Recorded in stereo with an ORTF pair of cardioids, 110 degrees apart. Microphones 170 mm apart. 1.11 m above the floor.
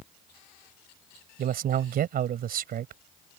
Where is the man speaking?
60° right.